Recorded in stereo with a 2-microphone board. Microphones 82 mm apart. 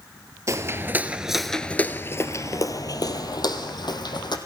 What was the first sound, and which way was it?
Footsteps, 40° right (ahead or behind).